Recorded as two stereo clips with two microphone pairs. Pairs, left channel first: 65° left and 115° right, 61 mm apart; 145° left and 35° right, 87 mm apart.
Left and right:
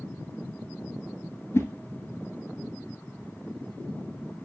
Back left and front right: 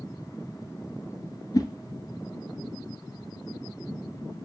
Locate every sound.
1.5 s a whoosh: 105° left, 0.8 m